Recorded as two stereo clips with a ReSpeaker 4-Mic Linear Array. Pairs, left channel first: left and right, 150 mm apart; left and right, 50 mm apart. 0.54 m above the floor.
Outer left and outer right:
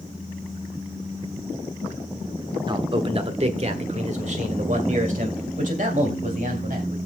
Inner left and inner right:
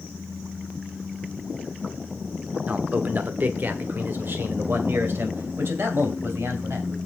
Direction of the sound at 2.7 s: 30° right (ahead or behind).